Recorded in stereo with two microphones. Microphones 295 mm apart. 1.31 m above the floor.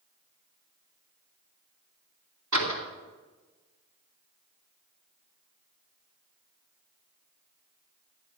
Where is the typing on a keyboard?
No typing on a keyboard in this recording.